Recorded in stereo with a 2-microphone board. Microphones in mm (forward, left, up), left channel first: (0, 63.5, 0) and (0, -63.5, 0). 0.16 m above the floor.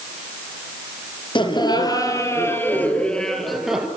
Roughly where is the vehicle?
No vehicle in this recording.